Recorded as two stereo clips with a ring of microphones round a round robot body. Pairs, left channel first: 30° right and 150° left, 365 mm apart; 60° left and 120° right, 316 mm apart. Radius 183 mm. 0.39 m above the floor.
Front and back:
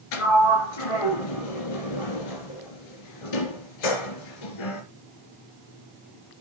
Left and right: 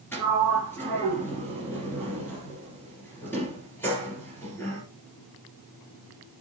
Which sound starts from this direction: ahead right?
A sliding door, at 0.1 s.